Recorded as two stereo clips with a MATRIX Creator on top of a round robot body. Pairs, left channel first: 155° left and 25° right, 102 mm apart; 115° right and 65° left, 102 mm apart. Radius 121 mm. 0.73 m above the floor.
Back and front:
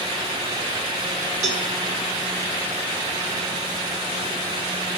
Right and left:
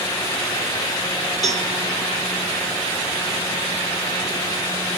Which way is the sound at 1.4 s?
20° right.